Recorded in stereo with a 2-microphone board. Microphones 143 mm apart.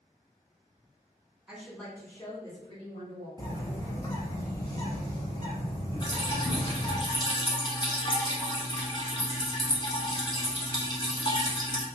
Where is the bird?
30° left (ahead or behind), 1.0 m.